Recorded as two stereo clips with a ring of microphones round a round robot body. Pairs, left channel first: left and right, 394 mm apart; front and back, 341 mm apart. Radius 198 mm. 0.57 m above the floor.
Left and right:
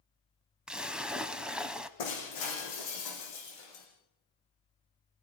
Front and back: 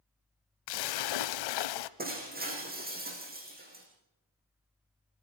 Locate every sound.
0.7 s a splash: straight ahead, 0.7 m
2.0 s breaking glass: 115° left, 6.5 m